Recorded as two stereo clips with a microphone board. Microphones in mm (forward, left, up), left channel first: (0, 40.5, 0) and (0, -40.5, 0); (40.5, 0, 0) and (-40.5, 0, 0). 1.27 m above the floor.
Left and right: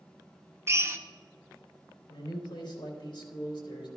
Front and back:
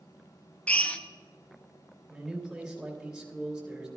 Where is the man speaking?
95° left, 3.5 m.